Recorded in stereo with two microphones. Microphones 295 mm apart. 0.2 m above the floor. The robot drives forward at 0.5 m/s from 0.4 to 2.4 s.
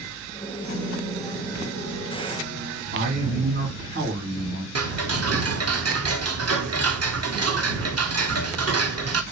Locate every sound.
0.6 s a piano: 65° right (ahead or behind), 3 m; by 2.8 s 55° right (ahead or behind), 3.5 m
2.9 s a man speaking: 40° right (ahead or behind), 2.5 m
4.8 s ticking: 55° right (ahead or behind), 0.5 m